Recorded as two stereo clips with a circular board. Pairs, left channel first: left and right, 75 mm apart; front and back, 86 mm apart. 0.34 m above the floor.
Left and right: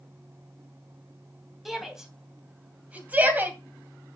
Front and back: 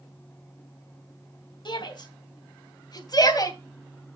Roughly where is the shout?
Ahead.